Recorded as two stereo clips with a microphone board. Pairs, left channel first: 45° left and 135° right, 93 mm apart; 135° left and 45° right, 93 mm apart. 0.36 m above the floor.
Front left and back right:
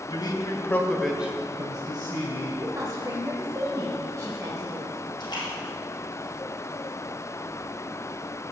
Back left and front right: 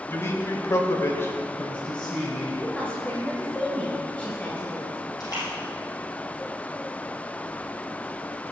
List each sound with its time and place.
0.1 s a man speaking: 75° left, 1.6 m; by 2.5 s 140° right, 1.9 m
2.6 s a woman speaking: 160° right, 1.5 m
5.2 s a splash: 85° left, 3.5 m